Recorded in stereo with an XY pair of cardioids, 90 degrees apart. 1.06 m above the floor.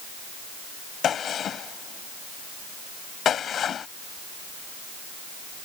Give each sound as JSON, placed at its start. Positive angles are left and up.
{"t": 1.0, "sound": "a gunshot", "azimuth_deg": 65}